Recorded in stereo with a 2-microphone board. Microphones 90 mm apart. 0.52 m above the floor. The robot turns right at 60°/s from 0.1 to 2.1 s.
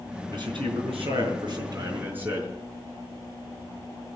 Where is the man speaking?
130° right, 6.5 m; by 2.5 s 20° right, 6.5 m.